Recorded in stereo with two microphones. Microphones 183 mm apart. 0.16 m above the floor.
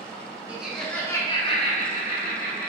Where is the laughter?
10° right (ahead or behind), 1.6 m; by 2.7 s 55° left (ahead or behind), 2 m.